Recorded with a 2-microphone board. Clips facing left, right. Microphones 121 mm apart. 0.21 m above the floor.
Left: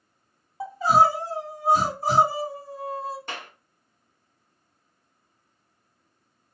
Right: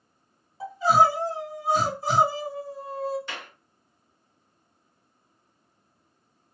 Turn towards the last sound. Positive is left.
turn(degrees=50)  # may be behind; listen again after turning